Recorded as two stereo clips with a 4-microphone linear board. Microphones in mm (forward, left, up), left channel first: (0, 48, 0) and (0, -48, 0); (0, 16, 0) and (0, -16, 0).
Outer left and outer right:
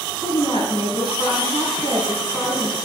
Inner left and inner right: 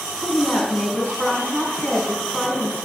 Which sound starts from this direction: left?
A woman speaking, at 0.2 s.